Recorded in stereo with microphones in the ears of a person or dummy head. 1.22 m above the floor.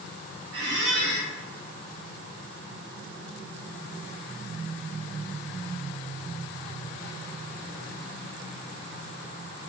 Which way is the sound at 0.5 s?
55° right (ahead or behind).